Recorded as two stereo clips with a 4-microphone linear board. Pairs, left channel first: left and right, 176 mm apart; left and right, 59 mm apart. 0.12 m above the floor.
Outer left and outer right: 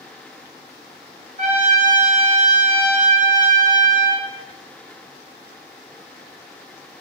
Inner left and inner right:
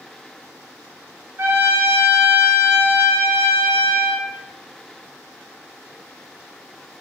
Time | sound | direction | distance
1.4 | a trumpet | 45° right (ahead or behind) | 0.7 m